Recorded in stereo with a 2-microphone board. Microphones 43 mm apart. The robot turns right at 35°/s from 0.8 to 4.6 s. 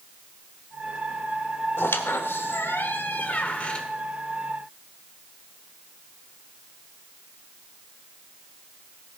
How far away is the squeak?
About 1.1 m.